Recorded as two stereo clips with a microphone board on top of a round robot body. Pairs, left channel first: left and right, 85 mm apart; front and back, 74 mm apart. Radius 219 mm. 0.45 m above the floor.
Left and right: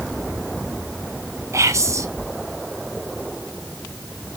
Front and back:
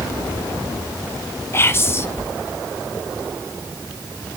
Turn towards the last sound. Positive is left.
turn(degrees=-50)